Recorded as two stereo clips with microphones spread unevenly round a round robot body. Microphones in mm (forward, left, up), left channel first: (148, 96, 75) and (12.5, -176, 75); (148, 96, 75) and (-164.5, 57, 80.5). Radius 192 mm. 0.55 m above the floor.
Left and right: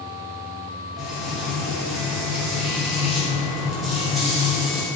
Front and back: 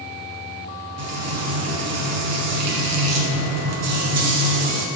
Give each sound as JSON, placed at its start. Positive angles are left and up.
{"t": 1.0, "sound": "frying", "azimuth_deg": 155, "distance_m": 1.1}